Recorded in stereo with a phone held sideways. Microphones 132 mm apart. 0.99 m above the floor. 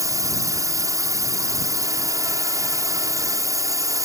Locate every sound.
0.0 s a drone: 25° right (ahead or behind)